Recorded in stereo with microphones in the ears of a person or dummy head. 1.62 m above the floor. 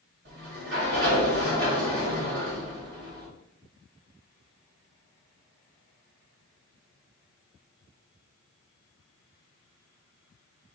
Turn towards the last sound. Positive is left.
turn(degrees=-55)  # may be behind; listen again after turning